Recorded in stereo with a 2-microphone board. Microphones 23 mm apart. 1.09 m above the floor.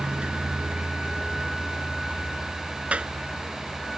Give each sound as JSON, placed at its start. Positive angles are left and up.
{"t": 0.0, "sound": "a vehicle", "side_deg": -80}
{"t": 2.9, "sound": "a clap", "side_deg": -70}